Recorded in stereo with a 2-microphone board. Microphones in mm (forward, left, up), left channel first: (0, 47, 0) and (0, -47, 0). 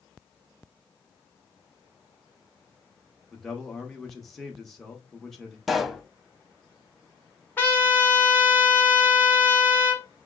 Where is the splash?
I don't hear a splash.